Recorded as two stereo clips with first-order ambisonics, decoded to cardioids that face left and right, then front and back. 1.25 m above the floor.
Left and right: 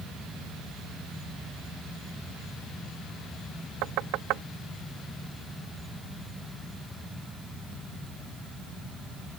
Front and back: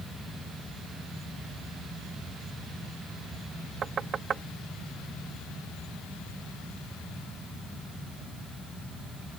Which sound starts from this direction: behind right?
Knocking, at 3.8 s.